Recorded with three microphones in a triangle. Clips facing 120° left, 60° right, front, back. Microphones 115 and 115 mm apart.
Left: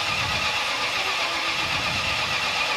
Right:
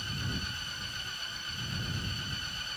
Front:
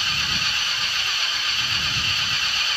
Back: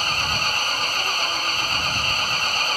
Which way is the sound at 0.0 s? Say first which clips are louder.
Left 11 dB, back 5 dB; 130° left.